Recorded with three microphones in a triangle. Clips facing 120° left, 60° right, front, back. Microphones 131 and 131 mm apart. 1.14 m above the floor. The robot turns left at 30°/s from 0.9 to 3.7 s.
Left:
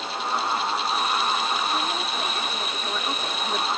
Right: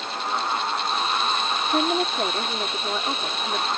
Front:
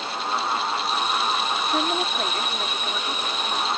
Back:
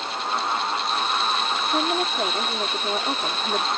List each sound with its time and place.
1.7 s a woman speaking: 90° right; by 3.7 s 150° right